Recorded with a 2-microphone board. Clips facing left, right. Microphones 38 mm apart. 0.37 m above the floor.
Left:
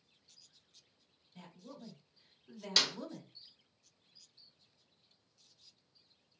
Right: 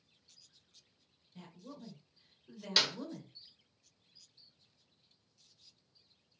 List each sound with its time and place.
1.4 s a woman speaking: centre (ahead or behind), 1.2 m
2.8 s a clap: 10° right (ahead or behind), 0.6 m